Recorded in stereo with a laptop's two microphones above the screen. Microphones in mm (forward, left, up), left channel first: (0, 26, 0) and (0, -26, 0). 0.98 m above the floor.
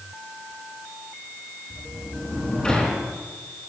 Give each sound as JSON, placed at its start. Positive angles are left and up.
{"t": 1.7, "sound": "a sliding door", "side_deg": 20, "distance_m": 4.5}